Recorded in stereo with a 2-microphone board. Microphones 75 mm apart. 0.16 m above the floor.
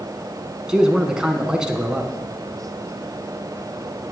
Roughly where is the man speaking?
Centre.